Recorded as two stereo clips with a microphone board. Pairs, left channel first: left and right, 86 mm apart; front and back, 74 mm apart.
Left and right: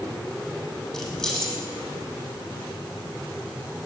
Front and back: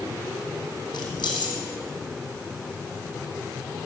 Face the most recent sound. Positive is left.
turn(degrees=0)